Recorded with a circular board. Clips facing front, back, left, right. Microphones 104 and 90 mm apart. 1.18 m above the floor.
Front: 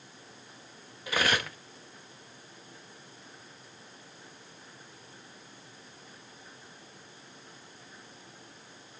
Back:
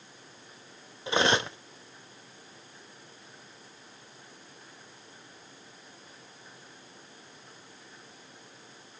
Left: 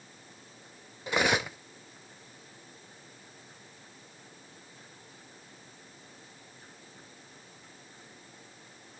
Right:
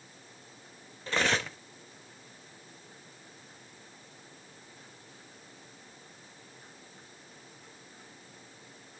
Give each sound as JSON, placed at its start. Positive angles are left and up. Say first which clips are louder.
{"t": 1.1, "sound": "cutlery clinking", "louder": "back 4 dB, left 2 dB", "azimuth_deg": 155, "distance_m": 0.5}